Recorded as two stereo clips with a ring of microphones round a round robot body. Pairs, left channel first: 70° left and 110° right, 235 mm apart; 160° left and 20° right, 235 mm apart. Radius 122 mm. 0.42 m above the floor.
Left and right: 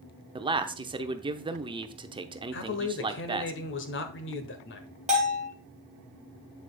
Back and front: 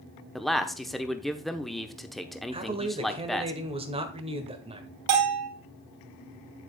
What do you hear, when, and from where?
0.3 s a man speaking: 115° right, 0.8 m
2.5 s a man speaking: 40° left, 1.5 m
5.1 s a bell: 50° right, 1.7 m